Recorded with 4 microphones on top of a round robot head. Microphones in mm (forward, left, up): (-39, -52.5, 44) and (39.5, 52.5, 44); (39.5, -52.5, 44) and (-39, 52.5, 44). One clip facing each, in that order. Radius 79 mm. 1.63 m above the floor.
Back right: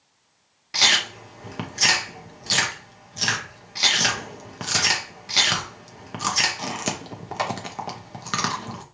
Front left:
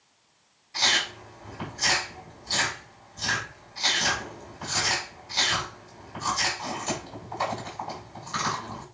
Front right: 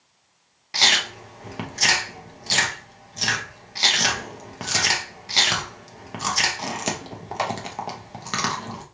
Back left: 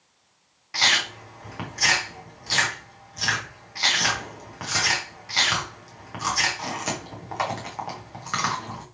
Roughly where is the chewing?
Behind right.